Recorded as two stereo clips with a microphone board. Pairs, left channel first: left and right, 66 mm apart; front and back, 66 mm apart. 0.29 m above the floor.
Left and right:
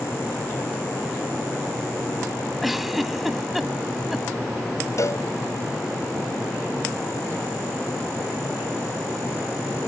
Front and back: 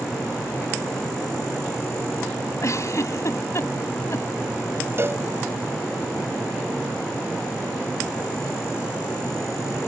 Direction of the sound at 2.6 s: 5° right.